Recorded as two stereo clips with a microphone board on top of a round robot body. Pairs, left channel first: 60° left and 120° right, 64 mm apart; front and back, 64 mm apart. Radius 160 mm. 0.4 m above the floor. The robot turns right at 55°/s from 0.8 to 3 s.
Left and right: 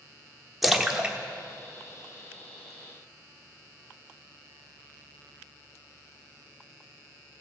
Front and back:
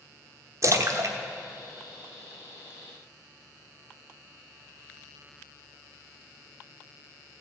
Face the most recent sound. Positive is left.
turn(degrees=-85)